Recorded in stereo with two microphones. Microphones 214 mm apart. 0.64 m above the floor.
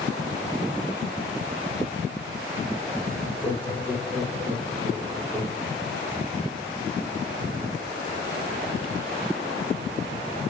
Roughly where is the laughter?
Centre.